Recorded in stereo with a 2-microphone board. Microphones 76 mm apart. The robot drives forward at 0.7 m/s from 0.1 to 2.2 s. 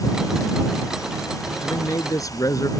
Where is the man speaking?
45° left (ahead or behind); by 2.7 s 50° left (ahead or behind).